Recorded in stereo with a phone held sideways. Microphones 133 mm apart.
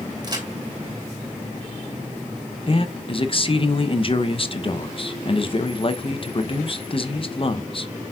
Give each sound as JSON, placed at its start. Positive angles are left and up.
{"t": 0.2, "sound": "a crack", "side_deg": -35, "distance_m": 3.0}
{"t": 2.7, "sound": "a man speaking", "side_deg": 40, "distance_m": 0.8}